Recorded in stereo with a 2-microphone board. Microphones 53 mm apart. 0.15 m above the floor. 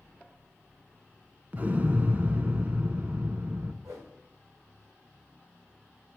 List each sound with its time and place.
1.5 s an explosion: 35° right (ahead or behind), 0.5 m
3.8 s a whoosh: 75° right (ahead or behind), 3 m